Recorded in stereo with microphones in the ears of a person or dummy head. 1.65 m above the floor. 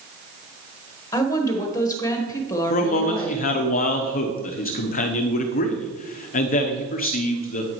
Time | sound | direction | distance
1.1 | a woman speaking | 15° left (ahead or behind) | 1.5 m
2.7 | a man speaking | 45° left (ahead or behind) | 0.9 m